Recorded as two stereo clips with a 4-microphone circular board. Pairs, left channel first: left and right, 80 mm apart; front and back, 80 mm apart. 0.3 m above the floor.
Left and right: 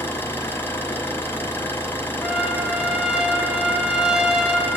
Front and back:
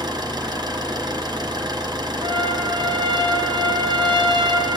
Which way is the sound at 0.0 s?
150° left.